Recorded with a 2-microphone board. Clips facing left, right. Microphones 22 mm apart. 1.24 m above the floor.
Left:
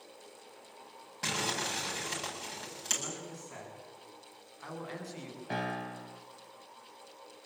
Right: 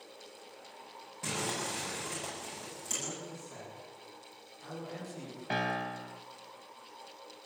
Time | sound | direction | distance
1.2 | crumpling | 50° left (ahead or behind) | 8.5 m
3.0 | a man speaking | 75° left (ahead or behind) | 9.5 m
5.5 | a piano | 25° right (ahead or behind) | 0.5 m